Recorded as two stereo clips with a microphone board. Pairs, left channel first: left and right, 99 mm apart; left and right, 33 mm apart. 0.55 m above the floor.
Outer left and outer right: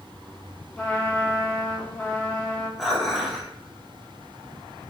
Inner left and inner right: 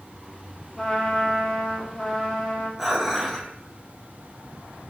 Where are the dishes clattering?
Centre (ahead or behind), 0.7 m.